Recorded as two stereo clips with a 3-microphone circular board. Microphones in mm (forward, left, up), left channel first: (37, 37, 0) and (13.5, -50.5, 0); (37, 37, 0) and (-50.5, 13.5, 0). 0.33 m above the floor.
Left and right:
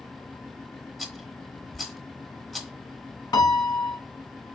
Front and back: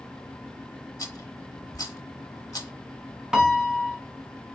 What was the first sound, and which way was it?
A rattle, 10° right.